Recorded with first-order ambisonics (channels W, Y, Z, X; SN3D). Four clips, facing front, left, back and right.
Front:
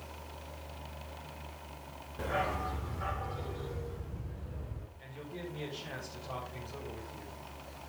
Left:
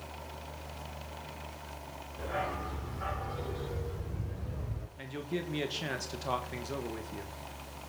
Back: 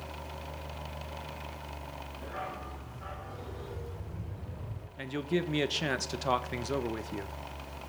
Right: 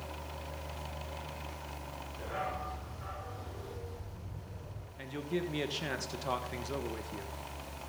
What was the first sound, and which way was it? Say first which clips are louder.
A dog barking: left 3 dB, front 7 dB; 10° left.